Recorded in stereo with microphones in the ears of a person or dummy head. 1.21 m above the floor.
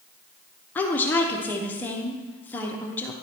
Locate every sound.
0.8 s a woman speaking: 15° left (ahead or behind), 0.9 m